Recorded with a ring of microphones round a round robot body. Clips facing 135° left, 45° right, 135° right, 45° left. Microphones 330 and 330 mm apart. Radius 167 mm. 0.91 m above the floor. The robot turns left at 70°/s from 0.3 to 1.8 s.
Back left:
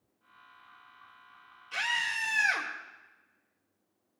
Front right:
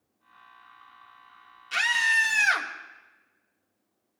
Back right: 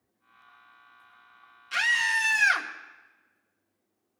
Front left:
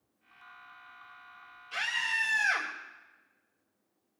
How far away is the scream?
About 2.5 m.